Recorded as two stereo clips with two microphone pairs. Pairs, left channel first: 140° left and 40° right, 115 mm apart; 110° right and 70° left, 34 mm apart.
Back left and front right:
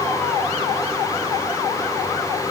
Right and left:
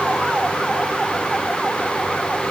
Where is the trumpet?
No trumpet in this recording.